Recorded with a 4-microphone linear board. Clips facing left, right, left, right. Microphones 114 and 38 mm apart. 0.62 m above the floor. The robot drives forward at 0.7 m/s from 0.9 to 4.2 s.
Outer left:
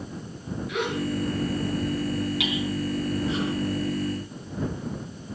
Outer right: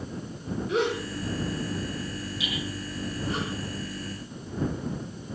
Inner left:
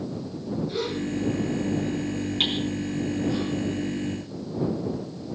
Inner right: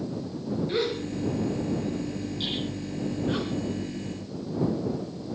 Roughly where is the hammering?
Left.